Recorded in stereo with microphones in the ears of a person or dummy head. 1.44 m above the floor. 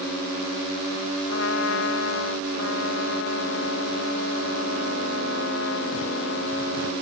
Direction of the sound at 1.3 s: 70° left (ahead or behind).